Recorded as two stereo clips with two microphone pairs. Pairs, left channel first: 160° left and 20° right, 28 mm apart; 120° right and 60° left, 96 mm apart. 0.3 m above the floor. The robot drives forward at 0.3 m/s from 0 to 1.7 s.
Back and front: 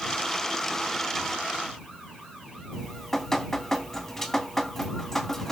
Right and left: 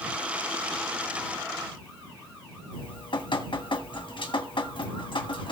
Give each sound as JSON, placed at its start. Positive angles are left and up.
{"t": 2.7, "sound": "dripping", "azimuth_deg": -120, "distance_m": 2.5}